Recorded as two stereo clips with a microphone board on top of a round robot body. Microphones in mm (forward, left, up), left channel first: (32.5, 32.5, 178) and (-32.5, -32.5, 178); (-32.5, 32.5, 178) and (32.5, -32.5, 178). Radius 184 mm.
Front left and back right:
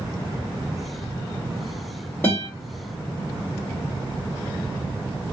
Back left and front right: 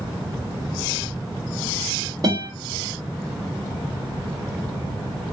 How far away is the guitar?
About 2.0 m.